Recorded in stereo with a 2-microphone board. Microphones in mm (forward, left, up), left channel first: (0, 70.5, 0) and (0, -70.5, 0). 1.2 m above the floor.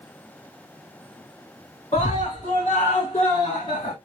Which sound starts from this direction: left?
A scream, at 1.9 s.